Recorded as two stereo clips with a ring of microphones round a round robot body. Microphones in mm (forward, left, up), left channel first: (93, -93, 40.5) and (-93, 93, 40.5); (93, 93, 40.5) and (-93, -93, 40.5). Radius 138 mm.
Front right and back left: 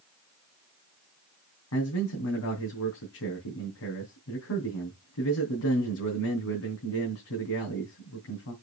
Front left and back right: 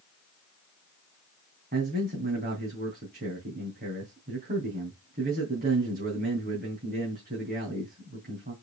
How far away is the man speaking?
About 3.5 m.